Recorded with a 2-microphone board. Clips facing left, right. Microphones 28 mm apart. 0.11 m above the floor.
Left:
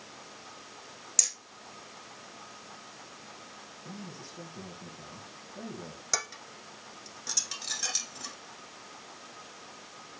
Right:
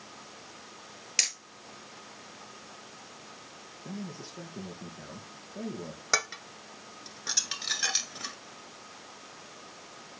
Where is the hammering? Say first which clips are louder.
Right 5 dB; 45° right (ahead or behind), 0.9 m.